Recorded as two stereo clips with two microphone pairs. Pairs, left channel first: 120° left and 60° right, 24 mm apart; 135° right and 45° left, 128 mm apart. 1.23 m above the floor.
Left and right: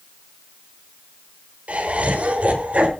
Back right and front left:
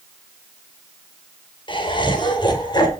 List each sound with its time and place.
1.7 s laughter: 80° right, 5 m; by 2.9 s 75° right, 5.5 m